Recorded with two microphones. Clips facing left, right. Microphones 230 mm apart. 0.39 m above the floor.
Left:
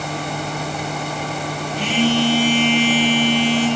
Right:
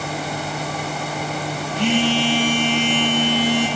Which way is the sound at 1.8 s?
30° right (ahead or behind).